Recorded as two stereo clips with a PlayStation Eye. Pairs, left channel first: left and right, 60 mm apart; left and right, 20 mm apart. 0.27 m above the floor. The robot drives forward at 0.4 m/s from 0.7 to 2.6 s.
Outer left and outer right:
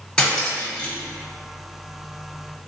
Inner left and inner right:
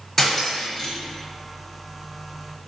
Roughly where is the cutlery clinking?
Centre.